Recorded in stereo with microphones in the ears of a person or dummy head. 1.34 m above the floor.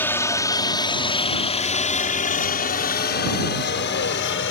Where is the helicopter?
10° left (ahead or behind); by 4.5 s 60° left (ahead or behind).